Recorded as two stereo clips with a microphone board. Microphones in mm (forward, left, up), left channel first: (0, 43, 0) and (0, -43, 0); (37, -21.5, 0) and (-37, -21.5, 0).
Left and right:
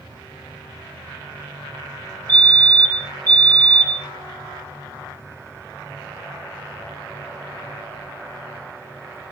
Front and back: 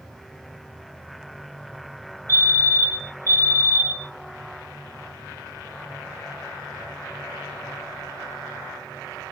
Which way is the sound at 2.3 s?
55° right.